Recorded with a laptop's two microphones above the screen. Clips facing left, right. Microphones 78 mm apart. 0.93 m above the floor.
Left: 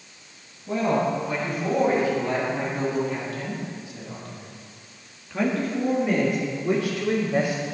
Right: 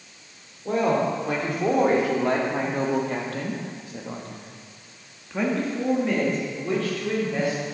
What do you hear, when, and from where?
0.7 s a woman speaking: 70° right (ahead or behind), 3.5 m; by 7.6 s 20° left (ahead or behind), 3.5 m